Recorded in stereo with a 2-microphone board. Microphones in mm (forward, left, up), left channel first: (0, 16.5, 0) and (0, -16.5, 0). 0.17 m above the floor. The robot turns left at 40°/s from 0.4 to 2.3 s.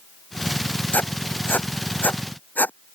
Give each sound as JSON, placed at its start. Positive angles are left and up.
{"t": 0.9, "sound": "writing", "side_deg": 60}